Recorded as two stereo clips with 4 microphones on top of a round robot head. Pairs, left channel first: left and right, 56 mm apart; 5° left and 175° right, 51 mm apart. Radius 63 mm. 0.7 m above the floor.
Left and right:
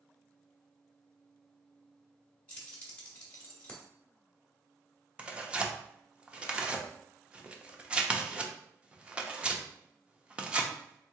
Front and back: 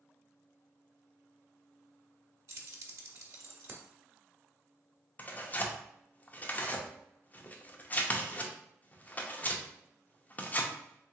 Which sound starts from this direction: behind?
Keys jangling, at 2.5 s.